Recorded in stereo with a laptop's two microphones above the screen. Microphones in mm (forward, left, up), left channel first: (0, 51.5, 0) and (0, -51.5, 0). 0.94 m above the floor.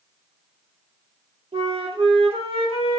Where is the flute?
65° right (ahead or behind), 3 m.